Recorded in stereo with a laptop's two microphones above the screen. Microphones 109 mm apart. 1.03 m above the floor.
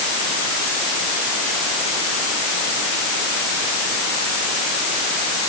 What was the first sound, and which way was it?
Only background noise.